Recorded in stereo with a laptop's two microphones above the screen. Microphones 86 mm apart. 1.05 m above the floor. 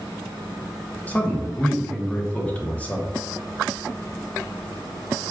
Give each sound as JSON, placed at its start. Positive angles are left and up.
{"t": 1.1, "sound": "a man speaking", "side_deg": 20, "distance_m": 0.6}